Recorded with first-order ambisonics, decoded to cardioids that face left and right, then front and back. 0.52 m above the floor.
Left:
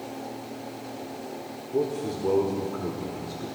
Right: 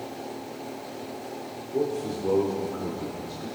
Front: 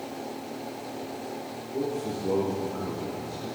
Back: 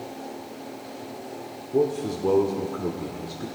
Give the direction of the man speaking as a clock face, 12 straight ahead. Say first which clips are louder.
Even, back 7 dB; 6 o'clock.